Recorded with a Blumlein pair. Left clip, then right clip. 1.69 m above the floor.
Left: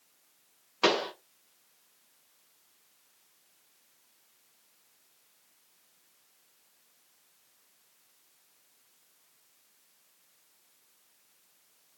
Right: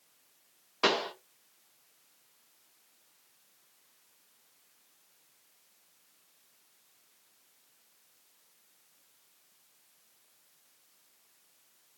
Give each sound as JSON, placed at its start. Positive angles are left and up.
{"t": 0.8, "sound": "a pop", "azimuth_deg": 5, "distance_m": 1.4}